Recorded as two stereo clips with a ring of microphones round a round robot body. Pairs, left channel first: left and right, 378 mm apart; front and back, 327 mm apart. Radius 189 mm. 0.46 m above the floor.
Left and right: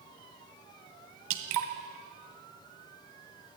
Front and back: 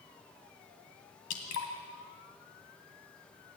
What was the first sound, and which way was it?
Dripping, 55° right.